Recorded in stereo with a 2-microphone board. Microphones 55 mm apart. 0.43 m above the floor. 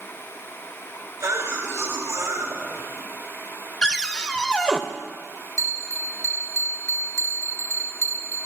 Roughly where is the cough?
Right.